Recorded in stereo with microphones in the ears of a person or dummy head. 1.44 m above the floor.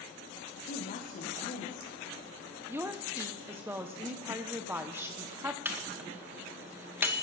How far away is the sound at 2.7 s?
About 0.9 m.